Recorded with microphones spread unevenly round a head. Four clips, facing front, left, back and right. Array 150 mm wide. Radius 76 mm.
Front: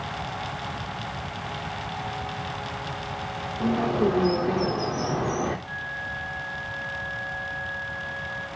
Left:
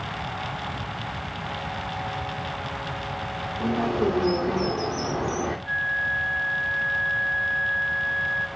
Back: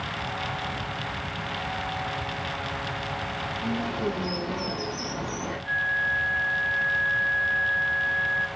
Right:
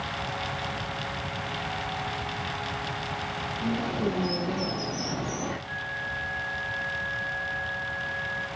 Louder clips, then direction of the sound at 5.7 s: Left 7 dB, back 7 dB; 115° left.